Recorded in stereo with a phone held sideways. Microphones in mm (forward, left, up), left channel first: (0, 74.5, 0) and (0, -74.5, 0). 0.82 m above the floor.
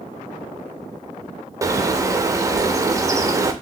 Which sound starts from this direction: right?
A bird, at 1.6 s.